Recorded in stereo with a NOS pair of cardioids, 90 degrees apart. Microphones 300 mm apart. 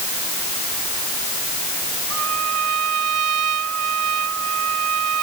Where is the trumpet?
60° right.